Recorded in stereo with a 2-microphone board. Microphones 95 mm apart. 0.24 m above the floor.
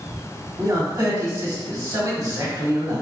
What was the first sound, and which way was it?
A man speaking, 40° right (ahead or behind).